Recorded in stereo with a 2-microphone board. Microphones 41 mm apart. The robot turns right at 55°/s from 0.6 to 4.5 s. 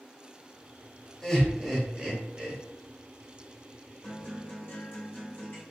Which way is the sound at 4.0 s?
35° left (ahead or behind).